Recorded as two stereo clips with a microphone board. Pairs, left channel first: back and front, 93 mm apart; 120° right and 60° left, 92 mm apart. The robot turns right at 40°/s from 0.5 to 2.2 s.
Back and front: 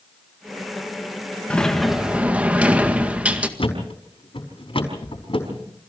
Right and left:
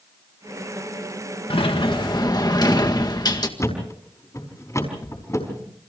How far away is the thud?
About 5 m.